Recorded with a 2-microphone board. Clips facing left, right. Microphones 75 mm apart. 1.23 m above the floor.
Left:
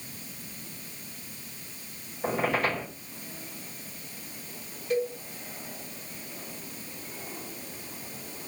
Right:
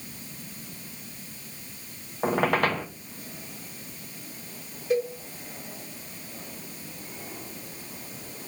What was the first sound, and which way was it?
A squeak, 70° right (ahead or behind).